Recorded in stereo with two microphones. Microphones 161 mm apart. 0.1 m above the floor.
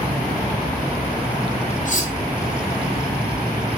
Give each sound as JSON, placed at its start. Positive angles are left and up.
{"t": 1.9, "sound": "cutlery clinking", "side_deg": 55, "distance_m": 2.0}